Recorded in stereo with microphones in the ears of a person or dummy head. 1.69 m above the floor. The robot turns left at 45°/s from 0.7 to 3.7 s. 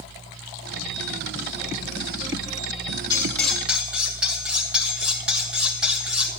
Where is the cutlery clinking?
15° left (ahead or behind), 1.4 m; by 6.3 s 5° right (ahead or behind), 1.4 m.